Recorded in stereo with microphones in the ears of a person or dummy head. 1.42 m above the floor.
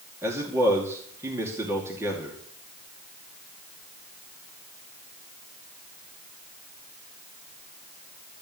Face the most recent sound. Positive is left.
turn(degrees=-15)  # may be behind; listen again after turning